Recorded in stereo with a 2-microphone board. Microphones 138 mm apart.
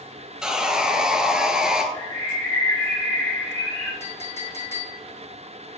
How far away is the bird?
About 3.5 m.